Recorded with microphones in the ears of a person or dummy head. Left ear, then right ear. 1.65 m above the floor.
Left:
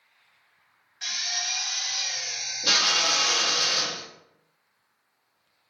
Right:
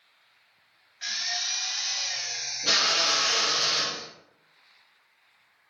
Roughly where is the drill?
Centre.